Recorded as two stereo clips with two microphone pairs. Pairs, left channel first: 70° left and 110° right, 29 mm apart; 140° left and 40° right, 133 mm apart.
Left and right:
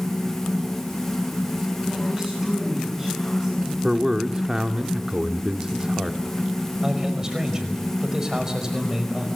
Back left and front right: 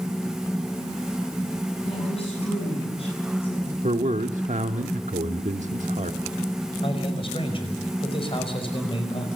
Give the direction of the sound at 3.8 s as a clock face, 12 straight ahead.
2 o'clock.